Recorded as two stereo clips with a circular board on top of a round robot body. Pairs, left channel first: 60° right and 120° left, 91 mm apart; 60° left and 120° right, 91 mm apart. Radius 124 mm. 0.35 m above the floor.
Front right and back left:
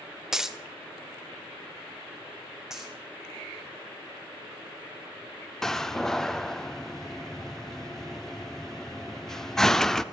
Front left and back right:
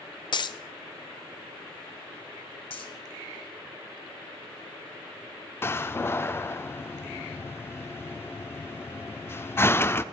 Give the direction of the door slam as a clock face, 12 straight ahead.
11 o'clock.